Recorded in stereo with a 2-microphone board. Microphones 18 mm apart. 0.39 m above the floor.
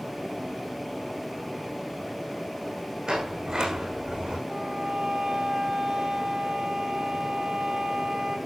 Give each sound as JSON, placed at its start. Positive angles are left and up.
{"t": 3.1, "sound": "a sliding door", "side_deg": -55, "distance_m": 6.5}
{"t": 4.5, "sound": "a violin", "side_deg": -75, "distance_m": 8.0}